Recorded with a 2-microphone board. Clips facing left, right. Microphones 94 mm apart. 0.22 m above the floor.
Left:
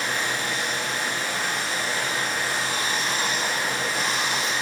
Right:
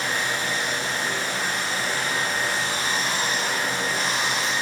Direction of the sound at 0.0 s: 35° right (ahead or behind).